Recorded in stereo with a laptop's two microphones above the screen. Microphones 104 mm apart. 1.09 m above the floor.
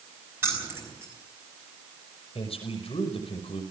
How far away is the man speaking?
About 5.5 m.